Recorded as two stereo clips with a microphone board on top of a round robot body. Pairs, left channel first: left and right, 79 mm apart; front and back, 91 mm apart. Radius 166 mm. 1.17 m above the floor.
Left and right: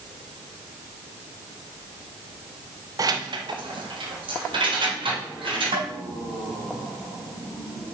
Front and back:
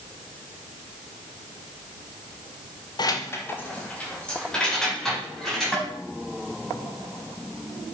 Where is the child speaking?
No child speaking in this recording.